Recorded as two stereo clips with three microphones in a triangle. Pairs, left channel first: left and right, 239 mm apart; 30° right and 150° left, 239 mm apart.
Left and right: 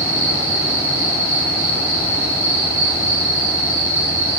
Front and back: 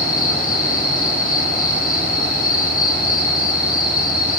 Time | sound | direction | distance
0.0 | an insect | 80° right | 7 m